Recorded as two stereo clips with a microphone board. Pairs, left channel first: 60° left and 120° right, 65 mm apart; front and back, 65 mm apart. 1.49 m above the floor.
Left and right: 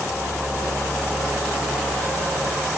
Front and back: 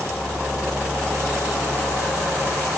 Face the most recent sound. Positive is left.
No sound to turn to.